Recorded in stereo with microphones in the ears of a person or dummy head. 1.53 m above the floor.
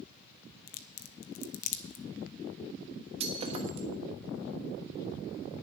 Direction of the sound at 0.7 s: 50° left (ahead or behind).